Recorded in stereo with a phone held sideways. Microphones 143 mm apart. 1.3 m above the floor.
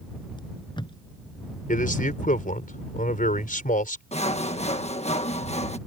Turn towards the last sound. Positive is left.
turn(degrees=50)  # may be behind; listen again after turning